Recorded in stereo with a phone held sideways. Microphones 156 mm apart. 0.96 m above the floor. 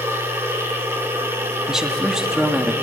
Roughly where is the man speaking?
Centre.